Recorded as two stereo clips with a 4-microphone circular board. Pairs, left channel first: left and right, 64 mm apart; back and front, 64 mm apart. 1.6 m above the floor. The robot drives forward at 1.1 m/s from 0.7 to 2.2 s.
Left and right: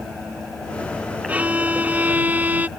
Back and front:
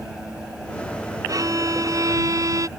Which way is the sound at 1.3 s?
25° right.